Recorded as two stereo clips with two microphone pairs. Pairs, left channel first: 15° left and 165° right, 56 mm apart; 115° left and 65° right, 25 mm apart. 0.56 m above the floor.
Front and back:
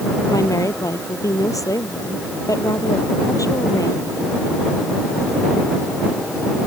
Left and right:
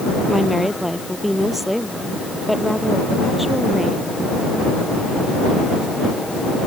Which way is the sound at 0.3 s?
25° left.